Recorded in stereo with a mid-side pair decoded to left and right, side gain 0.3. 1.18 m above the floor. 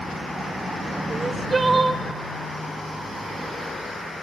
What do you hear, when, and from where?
1.1 s crying: 45° right, 1.6 m